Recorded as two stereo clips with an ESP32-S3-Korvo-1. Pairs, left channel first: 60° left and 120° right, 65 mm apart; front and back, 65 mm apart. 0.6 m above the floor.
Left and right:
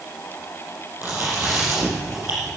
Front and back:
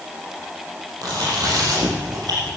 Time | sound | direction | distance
1.0 | chewing | straight behind | 6 m